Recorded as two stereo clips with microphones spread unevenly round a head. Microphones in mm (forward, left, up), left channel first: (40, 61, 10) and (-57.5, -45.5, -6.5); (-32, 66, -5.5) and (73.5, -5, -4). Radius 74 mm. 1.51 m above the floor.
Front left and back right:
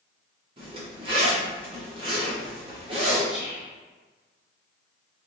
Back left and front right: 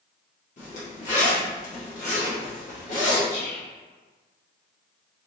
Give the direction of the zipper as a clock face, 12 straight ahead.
6 o'clock.